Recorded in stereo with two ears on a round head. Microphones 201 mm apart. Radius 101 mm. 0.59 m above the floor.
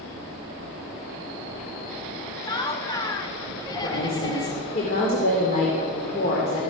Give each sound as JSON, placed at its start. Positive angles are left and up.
{"t": 2.4, "sound": "laughter", "side_deg": 20, "distance_m": 1.0}
{"t": 3.8, "sound": "a woman speaking", "side_deg": 40, "distance_m": 2.0}